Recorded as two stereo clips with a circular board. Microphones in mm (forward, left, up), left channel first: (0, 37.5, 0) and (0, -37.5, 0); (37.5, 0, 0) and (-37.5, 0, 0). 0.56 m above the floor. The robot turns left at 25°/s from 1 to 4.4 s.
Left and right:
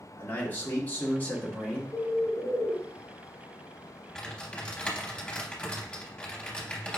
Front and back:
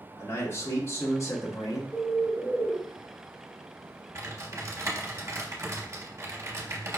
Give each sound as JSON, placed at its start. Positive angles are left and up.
{"t": 0.2, "sound": "a man speaking", "azimuth_deg": 35, "distance_m": 0.9}
{"t": 1.9, "sound": "a bird", "azimuth_deg": -40, "distance_m": 1.3}
{"t": 4.2, "sound": "typing on a keyboard", "azimuth_deg": 170, "distance_m": 0.7}